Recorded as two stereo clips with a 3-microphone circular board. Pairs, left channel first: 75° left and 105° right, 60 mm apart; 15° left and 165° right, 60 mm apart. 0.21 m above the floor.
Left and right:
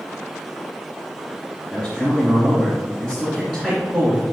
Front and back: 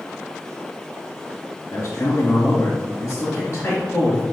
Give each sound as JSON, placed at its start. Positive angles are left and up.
{"t": 1.7, "sound": "a man speaking", "azimuth_deg": -30, "distance_m": 2.5}